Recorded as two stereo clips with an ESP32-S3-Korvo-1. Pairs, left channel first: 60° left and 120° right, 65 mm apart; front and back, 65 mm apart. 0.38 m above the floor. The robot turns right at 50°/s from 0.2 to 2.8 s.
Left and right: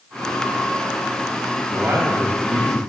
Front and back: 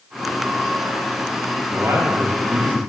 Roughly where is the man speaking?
Behind.